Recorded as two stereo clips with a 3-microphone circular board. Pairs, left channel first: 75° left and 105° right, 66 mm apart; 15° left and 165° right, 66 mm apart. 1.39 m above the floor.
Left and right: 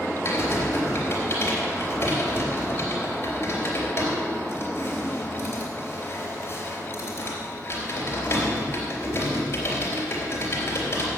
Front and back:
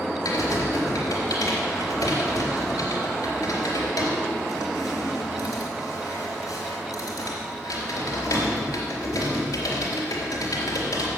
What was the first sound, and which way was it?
Typing on a keyboard, 30° left.